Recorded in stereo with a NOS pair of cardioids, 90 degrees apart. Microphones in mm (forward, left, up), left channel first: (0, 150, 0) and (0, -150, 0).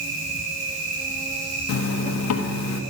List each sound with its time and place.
0.0 s an insect: 50° right, 5 m
1.7 s a zipper: 65° left, 1.4 m